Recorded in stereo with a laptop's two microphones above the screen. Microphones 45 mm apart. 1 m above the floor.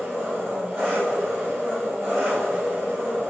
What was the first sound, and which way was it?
An engine running, 10° right (ahead or behind).